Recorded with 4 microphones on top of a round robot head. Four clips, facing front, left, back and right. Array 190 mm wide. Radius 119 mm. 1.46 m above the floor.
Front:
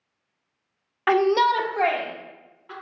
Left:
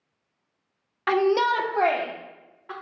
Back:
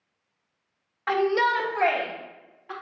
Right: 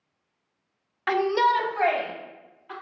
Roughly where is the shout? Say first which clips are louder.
Left 1 dB, front 4 dB; ahead.